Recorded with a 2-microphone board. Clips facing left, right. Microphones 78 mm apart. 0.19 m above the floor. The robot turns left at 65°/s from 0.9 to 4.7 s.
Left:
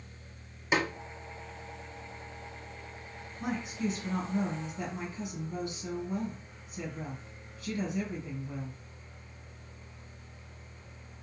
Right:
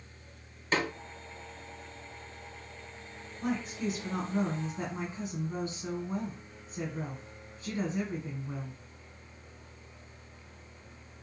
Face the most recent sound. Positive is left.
turn(degrees=-50)